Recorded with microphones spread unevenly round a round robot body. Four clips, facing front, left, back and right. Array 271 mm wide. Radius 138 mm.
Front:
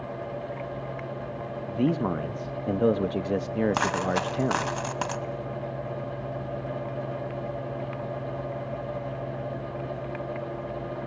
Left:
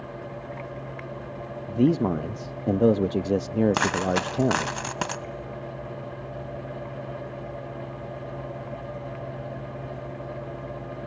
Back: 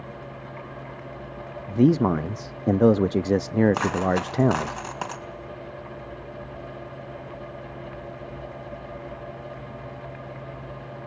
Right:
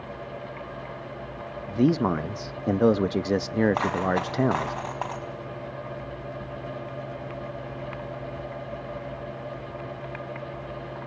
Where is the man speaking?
175° left, 0.6 m.